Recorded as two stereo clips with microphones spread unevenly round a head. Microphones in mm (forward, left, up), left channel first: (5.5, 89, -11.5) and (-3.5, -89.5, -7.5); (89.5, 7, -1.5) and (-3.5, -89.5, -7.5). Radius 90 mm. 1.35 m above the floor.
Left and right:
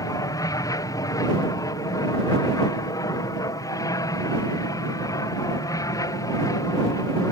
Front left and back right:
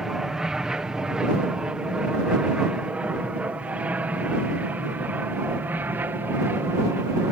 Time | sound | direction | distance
0.0 | an aircraft | 140° left | ?